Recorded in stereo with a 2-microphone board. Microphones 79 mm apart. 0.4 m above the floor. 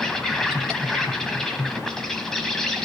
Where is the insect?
5° left (ahead or behind), 1.7 m.